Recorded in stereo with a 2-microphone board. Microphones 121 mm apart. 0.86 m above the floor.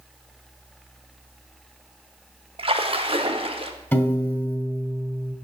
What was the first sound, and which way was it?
A splash, 50° right (ahead or behind).